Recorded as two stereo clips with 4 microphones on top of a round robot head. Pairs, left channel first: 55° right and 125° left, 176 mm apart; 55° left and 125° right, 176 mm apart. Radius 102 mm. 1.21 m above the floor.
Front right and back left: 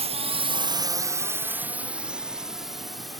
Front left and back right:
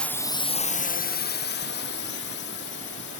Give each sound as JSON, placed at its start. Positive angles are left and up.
{"t": 0.0, "sound": "a drone", "azimuth_deg": 135}